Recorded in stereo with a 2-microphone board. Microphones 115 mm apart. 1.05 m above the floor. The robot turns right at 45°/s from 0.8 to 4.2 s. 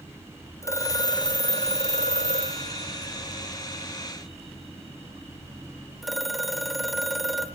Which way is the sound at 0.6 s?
25° left.